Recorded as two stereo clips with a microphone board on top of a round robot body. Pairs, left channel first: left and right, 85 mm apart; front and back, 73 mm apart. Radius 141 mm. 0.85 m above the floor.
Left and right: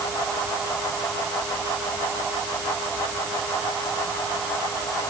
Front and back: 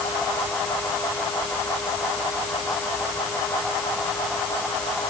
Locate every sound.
Only background noise.